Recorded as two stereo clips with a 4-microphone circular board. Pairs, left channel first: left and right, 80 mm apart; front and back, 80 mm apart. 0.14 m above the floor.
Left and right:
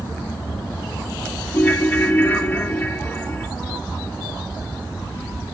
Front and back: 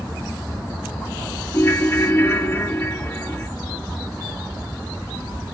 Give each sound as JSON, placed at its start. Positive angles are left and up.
{"t": 1.5, "sound": "a ringtone", "azimuth_deg": 35, "distance_m": 0.6}